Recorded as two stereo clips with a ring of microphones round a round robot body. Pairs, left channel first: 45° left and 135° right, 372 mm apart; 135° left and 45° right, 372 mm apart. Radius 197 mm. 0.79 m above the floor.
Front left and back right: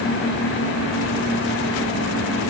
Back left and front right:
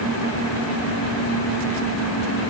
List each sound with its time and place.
Only background noise.